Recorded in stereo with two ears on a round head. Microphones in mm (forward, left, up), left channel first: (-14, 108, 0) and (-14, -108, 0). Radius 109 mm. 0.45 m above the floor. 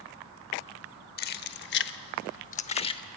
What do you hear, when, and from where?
1.2 s keys jangling: 40° left (ahead or behind), 0.9 m; by 3.0 s 20° left (ahead or behind), 0.8 m